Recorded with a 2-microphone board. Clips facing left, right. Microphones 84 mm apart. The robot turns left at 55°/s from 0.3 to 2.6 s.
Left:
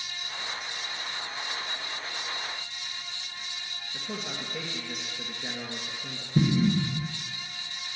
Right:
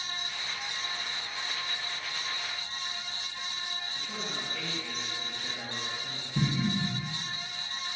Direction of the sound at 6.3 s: 45° left (ahead or behind).